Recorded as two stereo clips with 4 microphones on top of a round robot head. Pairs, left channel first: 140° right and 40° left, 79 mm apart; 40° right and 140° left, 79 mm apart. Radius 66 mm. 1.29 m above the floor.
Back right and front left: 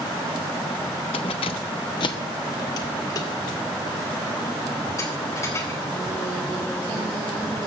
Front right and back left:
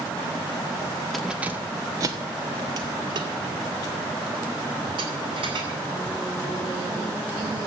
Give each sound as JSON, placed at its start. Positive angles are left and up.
{"t": 1.1, "sound": "keys jangling", "azimuth_deg": -125, "distance_m": 0.9}